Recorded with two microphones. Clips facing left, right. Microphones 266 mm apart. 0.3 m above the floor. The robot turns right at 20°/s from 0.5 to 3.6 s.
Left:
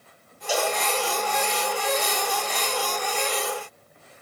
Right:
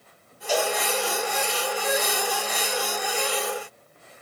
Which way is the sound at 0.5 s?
10° left (ahead or behind).